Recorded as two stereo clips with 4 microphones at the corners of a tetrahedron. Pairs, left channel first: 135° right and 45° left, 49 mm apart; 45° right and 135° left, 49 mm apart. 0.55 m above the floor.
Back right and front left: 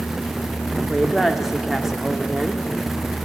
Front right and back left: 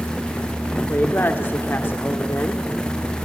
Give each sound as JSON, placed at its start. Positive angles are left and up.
{"t": 0.9, "sound": "a woman speaking", "azimuth_deg": -35, "distance_m": 1.2}